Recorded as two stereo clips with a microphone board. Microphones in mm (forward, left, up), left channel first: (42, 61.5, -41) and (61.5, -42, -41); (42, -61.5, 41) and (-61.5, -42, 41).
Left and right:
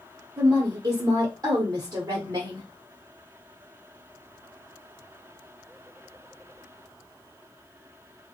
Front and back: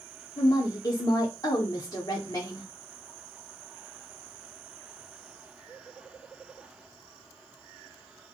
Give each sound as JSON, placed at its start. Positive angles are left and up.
{"t": 0.4, "sound": "a woman speaking", "azimuth_deg": -50, "distance_m": 0.9}